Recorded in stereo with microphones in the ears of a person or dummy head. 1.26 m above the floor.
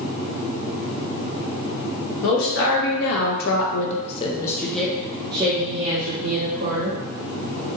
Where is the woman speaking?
80° left, 1.4 m; by 7.0 s 50° right (ahead or behind), 1.4 m.